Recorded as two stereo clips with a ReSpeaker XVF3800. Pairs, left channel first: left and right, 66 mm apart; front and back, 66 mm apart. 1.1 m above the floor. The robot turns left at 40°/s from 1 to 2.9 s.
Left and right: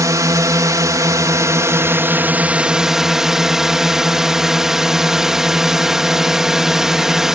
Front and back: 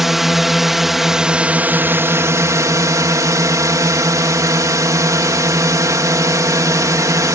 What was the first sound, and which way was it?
A drone, 95° right.